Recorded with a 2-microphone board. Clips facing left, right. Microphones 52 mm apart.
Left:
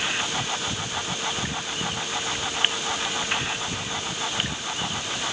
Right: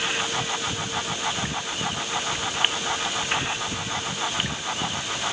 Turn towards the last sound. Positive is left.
No sound to turn to.